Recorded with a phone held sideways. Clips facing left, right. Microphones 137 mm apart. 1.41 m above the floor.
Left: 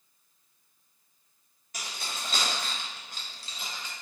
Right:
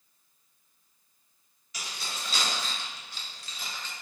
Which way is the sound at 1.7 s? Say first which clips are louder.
Left 1 dB; 50° left (ahead or behind).